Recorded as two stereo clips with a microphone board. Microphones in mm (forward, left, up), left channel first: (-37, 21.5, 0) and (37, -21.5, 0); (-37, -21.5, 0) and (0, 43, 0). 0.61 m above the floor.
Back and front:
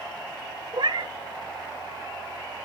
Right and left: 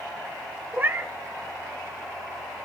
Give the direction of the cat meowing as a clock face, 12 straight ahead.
12 o'clock.